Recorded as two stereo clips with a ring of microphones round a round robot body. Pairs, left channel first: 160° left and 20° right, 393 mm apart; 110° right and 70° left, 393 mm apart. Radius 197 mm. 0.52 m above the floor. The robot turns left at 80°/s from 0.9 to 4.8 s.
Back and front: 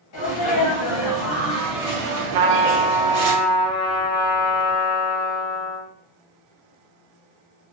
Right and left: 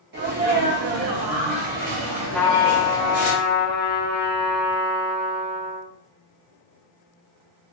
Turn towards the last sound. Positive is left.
turn(degrees=140)